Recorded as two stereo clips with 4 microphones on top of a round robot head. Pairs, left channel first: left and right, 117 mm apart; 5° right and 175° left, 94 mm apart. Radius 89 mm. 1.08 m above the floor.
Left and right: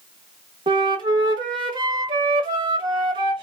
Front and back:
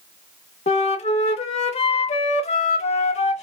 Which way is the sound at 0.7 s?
30° right.